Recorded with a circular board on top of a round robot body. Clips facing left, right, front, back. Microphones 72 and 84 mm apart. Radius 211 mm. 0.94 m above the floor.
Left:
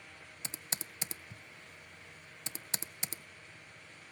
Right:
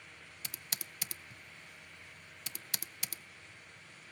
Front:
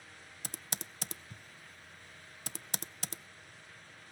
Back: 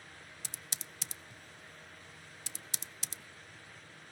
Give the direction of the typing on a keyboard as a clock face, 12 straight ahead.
11 o'clock.